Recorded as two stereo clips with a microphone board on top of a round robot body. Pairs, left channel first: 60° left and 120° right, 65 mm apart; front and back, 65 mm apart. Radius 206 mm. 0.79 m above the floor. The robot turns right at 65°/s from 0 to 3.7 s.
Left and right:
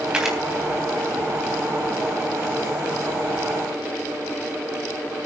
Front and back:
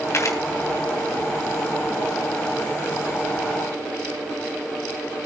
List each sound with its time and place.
0.1 s a camera shutter: 45° right, 3.5 m; by 0.4 s 30° right, 3.5 m